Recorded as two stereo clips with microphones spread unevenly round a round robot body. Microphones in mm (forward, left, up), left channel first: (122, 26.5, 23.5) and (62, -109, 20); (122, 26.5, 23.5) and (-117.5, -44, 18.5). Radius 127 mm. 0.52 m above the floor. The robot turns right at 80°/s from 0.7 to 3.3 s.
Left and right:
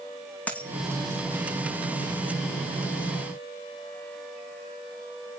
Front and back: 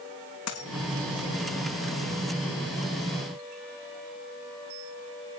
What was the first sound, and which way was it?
A dropped coin, 15° right.